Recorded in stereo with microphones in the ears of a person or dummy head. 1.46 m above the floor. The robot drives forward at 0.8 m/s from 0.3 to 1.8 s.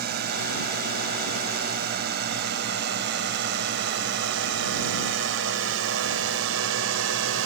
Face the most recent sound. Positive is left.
turn(degrees=-80)